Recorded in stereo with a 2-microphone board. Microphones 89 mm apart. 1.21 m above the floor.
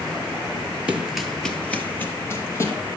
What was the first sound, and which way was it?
Running footsteps, 15° right (ahead or behind).